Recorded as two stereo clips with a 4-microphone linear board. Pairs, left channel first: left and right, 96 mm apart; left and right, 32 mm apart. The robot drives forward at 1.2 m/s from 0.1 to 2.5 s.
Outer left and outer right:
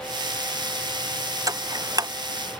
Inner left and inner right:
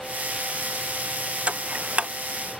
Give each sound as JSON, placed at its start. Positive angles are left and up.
{"t": 1.5, "sound": "ticking", "side_deg": -35}